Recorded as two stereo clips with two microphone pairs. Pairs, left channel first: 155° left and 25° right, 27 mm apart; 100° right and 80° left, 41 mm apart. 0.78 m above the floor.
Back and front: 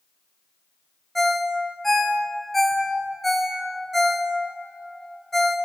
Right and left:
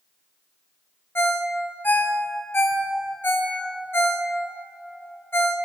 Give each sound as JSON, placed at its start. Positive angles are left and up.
{"t": 1.1, "sound": "a ringtone", "azimuth_deg": -120, "distance_m": 0.5}